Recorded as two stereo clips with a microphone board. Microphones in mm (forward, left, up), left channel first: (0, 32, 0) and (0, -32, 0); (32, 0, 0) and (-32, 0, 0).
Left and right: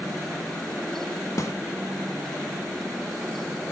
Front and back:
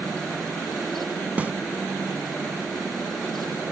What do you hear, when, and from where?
1.4 s a snare drum: 115° left, 0.6 m